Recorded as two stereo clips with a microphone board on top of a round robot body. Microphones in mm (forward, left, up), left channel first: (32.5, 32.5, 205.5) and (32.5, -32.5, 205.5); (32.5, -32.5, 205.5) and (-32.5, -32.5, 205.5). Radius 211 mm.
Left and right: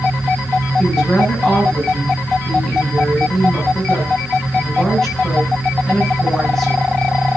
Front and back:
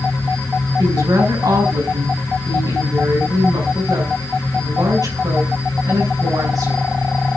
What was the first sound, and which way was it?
A woman speaking, 175° left.